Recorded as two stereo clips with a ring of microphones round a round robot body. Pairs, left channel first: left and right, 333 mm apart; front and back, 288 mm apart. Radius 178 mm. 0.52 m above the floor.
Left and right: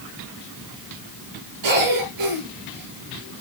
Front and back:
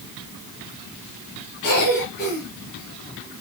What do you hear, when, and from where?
1.6 s a cough: 60° right, 8.5 m